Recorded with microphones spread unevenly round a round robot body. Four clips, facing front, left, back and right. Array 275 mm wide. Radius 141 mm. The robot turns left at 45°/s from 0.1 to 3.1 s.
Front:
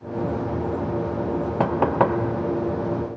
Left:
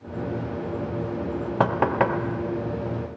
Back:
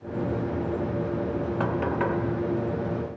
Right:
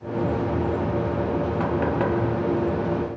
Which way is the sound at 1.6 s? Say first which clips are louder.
Left 6 dB, front 8 dB; 35° left.